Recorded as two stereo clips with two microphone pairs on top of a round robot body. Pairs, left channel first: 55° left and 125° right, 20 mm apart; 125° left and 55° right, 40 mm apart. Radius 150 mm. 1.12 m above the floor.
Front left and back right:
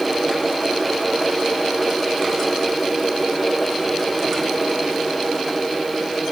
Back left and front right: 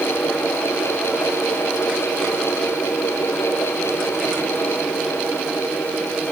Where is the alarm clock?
I don't hear an alarm clock.